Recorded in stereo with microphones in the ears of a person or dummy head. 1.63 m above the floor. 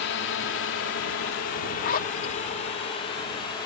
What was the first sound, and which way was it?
A drone, 80° left.